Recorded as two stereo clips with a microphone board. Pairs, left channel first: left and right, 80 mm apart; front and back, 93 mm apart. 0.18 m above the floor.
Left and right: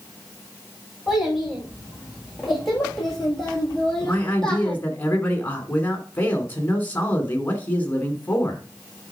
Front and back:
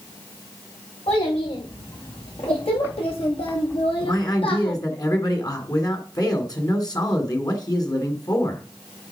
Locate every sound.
1.1 s a child speaking: straight ahead, 6.5 m; by 4.8 s 10° left, 4.5 m
4.0 s a man speaking: 30° left, 2.5 m